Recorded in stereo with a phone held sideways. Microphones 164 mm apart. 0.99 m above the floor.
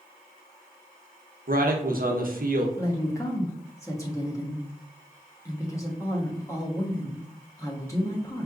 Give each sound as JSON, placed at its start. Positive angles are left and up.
{"t": 1.5, "sound": "a man speaking", "side_deg": -65, "distance_m": 0.8}
{"t": 2.8, "sound": "a woman speaking", "side_deg": 20, "distance_m": 0.9}